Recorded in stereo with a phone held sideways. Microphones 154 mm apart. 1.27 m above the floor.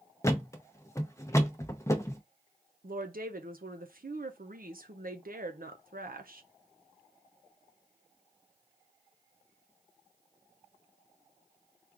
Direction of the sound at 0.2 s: 20° left (ahead or behind).